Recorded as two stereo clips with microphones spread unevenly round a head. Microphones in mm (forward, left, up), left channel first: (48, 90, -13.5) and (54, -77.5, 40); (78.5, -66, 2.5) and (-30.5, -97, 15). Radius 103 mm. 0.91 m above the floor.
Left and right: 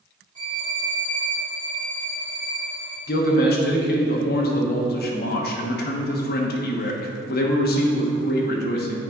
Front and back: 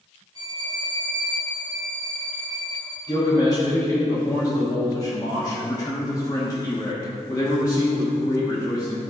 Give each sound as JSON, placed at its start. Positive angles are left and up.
{"t": 0.3, "sound": "a violin", "azimuth_deg": -25, "distance_m": 2.5}
{"t": 3.1, "sound": "a man speaking", "azimuth_deg": 85, "distance_m": 1.1}